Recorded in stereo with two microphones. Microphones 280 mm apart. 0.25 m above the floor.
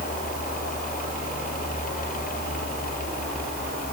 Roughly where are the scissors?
I don't hear scissors.